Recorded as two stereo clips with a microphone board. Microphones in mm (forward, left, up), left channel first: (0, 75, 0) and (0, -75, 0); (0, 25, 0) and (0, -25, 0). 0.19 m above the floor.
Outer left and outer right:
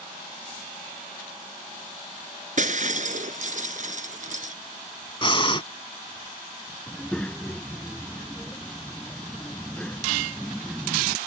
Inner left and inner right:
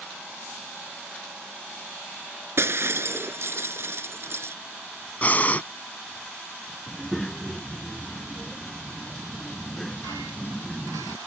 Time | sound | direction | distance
2.6 | breaking glass | 60° right (ahead or behind) | ?
5.2 | breathing | 35° left (ahead or behind) | ?
6.9 | a child speaking | 10° left (ahead or behind) | ?